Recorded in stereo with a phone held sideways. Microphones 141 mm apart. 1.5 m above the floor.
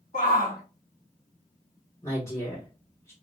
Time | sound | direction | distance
0.1 | a shout | 55° left (ahead or behind) | 0.9 m
2.0 | a woman speaking | 20° left (ahead or behind) | 2.5 m